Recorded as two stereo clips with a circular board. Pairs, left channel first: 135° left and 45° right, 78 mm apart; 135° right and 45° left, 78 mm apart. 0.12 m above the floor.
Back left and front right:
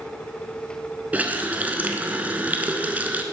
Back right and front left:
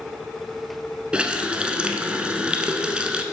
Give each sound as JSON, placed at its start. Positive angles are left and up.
{"t": 1.1, "sound": "a running tap", "azimuth_deg": -15, "distance_m": 0.8}